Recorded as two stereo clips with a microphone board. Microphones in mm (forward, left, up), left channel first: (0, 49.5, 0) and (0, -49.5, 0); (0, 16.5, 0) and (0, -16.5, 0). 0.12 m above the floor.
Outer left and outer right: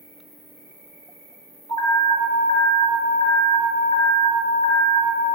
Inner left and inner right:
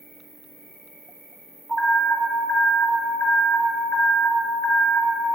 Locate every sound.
0.0 s an insect: 35° right (ahead or behind), 2.5 m
1.7 s an alarm: 40° left (ahead or behind), 1.4 m